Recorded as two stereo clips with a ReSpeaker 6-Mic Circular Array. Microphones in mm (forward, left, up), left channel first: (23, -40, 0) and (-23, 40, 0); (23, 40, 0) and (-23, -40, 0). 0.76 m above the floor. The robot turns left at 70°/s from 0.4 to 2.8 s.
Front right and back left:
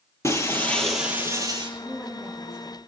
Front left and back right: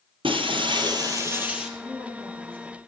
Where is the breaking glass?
115° right, 1.9 m; by 1.7 s 155° left, 1.9 m.